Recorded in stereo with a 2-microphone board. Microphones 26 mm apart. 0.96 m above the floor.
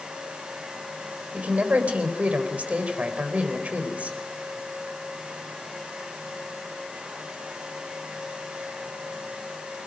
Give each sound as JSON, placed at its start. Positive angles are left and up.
{"t": 1.3, "sound": "a man speaking", "side_deg": -65, "distance_m": 4.0}